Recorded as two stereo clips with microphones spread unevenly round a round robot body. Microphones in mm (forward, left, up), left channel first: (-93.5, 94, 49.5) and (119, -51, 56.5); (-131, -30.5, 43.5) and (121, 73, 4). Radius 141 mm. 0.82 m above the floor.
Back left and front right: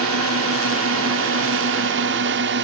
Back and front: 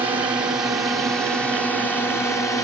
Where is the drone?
55° right; by 2.6 s 75° right.